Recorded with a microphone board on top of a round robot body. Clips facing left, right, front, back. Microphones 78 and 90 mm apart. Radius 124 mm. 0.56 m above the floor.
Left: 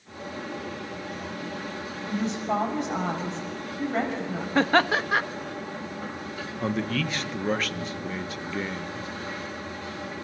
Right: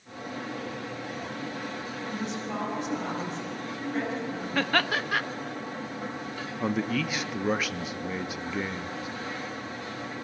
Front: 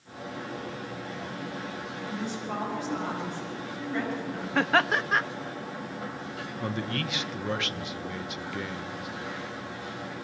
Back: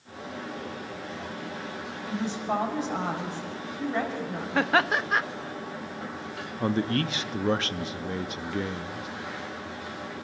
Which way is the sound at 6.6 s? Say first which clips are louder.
Even, back 7 dB; 165° right.